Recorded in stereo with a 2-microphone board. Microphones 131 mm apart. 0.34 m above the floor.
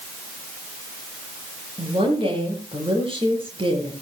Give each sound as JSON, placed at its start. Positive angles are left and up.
{"t": 1.8, "sound": "a woman speaking", "side_deg": -45, "distance_m": 7.0}